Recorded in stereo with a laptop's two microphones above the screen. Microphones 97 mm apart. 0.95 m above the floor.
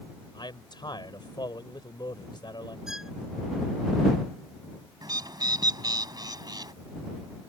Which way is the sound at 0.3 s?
50° left (ahead or behind).